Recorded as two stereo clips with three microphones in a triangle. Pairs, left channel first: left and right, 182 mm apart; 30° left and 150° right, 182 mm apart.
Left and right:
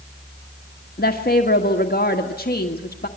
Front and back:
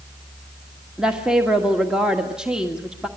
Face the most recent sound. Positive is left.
turn(degrees=125)